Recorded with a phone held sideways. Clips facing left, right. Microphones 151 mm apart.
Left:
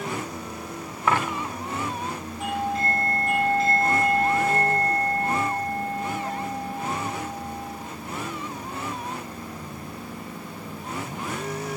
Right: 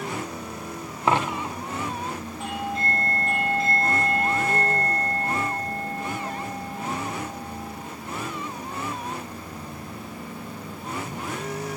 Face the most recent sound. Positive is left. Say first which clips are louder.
# left 4 dB
turn(degrees=0)  # may be behind; listen again after turning